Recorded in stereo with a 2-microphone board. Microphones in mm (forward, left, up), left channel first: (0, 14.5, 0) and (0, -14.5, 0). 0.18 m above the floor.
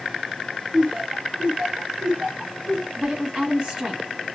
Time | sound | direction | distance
0.7 | laughter | 30° right (ahead or behind) | 1.2 m
3.0 | a woman speaking | 30° right (ahead or behind) | 1.8 m